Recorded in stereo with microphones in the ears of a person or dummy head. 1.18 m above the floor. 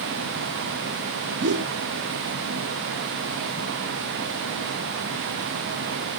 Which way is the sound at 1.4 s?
60° right (ahead or behind).